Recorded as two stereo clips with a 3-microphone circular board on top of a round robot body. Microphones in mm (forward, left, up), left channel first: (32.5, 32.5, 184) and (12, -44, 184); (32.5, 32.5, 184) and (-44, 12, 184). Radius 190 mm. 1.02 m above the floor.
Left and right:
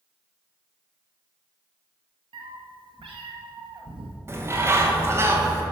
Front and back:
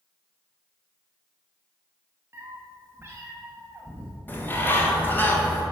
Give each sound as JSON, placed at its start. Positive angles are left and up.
{"t": 2.3, "sound": "a cat meowing", "azimuth_deg": -100, "distance_m": 0.7}
{"t": 4.3, "sound": "a bird", "azimuth_deg": -50, "distance_m": 1.5}